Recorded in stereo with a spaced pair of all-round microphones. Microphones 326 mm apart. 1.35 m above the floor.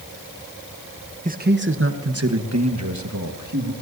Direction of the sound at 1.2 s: 25° right (ahead or behind).